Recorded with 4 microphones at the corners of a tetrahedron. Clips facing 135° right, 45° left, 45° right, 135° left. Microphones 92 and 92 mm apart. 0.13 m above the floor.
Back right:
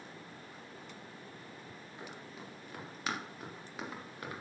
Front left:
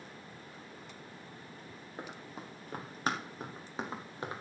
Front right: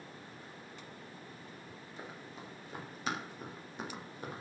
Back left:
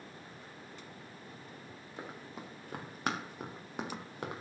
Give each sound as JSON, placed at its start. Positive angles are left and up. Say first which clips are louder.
{"t": 2.0, "sound": "running footsteps", "louder": "front left 4 dB, back left 3 dB", "azimuth_deg": 95, "distance_m": 4.5}